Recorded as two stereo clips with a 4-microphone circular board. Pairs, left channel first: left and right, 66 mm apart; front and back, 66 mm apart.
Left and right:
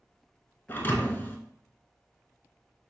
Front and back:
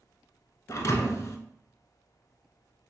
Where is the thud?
35° left, 0.6 m.